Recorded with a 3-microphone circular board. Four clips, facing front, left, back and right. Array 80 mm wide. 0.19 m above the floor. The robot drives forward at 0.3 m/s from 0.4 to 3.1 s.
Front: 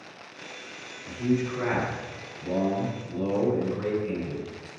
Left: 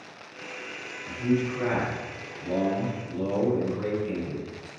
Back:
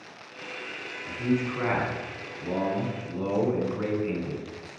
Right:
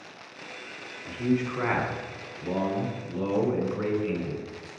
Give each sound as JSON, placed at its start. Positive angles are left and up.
{"t": 1.1, "sound": "a man speaking", "azimuth_deg": -100, "distance_m": 1.3}